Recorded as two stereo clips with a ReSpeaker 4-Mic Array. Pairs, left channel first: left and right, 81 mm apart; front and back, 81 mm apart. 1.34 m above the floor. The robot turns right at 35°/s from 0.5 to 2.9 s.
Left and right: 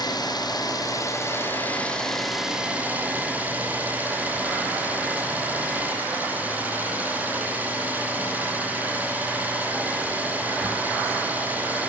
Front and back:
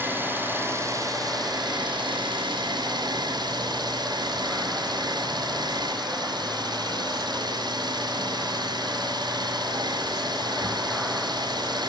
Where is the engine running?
115° left, 6.5 m; by 11.9 s 160° right, 6.5 m.